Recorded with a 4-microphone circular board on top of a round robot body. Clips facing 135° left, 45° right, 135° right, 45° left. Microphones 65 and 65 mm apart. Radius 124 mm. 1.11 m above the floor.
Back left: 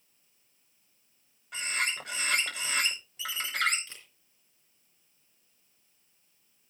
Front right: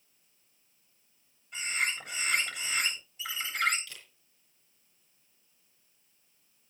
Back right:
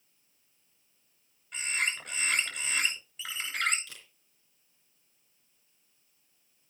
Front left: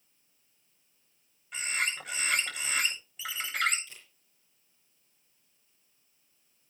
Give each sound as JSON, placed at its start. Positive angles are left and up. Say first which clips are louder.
{"t": 1.5, "sound": "a bird", "louder": "even, even", "azimuth_deg": 130, "distance_m": 6.0}
{"t": 3.9, "sound": "a camera shutter", "louder": "front right 1 dB, back right 2 dB", "azimuth_deg": -160, "distance_m": 3.5}